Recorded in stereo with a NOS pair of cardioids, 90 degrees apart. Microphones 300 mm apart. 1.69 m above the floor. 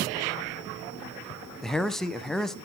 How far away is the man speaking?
About 1.2 m.